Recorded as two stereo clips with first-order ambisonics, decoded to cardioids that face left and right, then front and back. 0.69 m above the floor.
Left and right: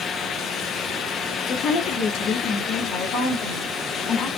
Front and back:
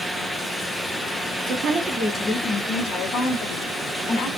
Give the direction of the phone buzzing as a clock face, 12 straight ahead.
No phone buzzing in this recording.